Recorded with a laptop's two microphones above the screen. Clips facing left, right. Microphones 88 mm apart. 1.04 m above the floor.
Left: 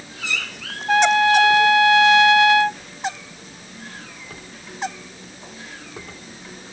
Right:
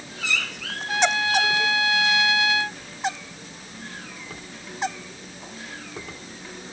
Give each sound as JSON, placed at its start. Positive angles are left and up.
{"t": 0.9, "sound": "a trumpet", "side_deg": 60}